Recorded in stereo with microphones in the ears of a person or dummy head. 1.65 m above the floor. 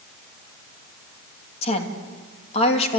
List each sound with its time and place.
1.6 s a woman speaking: 40° left (ahead or behind), 2.5 m